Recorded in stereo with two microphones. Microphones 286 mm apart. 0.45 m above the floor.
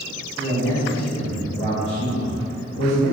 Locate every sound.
0.4 s a man speaking: centre (ahead or behind), 1.0 m; by 3.1 s 60° left (ahead or behind), 1.9 m